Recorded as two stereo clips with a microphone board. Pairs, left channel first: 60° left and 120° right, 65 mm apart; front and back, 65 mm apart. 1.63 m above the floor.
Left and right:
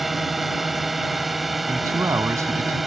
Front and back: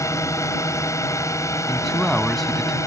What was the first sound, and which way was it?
A drone, 30° right.